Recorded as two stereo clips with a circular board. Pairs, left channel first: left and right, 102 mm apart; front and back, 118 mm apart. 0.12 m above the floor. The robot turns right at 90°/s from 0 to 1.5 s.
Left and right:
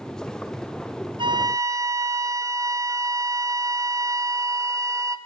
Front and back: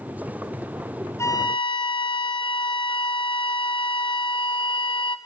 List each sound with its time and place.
1.2 s a flute: 65° right, 0.8 m; by 5.2 s 35° right, 0.8 m